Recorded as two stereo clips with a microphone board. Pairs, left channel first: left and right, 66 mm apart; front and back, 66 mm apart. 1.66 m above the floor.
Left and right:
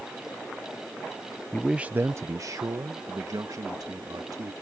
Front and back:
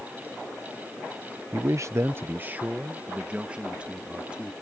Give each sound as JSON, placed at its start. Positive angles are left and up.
{"t": 1.5, "sound": "a man speaking", "azimuth_deg": 160}